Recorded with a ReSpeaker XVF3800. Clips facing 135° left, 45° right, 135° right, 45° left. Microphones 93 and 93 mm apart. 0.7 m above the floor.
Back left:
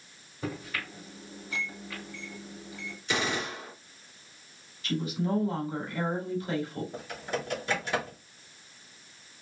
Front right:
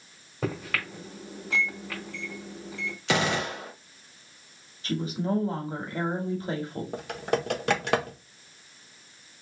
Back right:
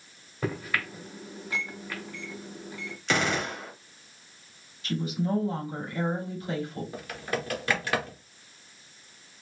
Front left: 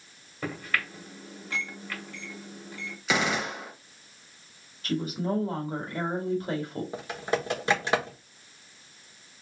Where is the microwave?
55° right, 2 m.